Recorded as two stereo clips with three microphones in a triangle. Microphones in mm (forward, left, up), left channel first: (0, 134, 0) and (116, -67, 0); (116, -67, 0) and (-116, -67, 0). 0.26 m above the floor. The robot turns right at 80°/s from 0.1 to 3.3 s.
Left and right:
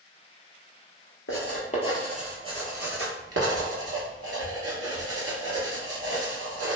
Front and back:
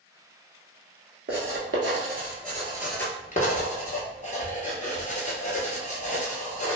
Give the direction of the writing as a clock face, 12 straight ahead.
7 o'clock.